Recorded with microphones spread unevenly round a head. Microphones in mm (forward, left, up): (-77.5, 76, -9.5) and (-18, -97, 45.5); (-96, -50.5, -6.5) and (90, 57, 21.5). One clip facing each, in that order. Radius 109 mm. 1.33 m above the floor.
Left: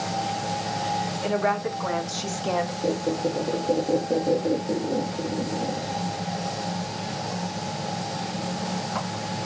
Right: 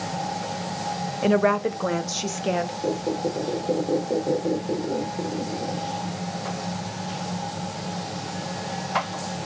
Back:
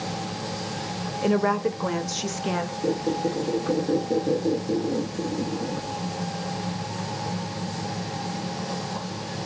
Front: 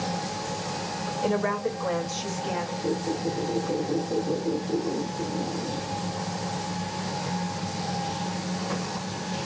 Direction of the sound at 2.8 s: 150° right.